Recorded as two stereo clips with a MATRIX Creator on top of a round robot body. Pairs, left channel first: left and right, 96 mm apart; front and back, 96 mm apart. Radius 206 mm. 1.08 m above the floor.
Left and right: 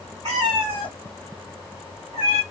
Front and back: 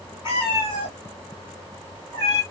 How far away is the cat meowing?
About 1.5 m.